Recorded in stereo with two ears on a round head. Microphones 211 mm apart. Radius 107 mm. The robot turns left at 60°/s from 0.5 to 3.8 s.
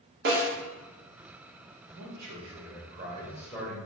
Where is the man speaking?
85° right, 1.0 m; by 3.8 s 165° left, 1.0 m.